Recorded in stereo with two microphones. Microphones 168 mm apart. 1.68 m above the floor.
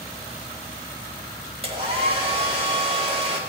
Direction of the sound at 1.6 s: 40° right (ahead or behind).